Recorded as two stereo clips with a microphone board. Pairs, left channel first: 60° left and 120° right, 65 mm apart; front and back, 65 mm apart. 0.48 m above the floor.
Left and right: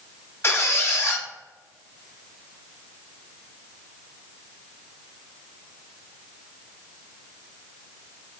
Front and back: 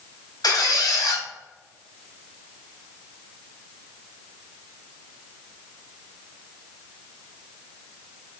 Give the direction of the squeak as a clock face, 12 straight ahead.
12 o'clock.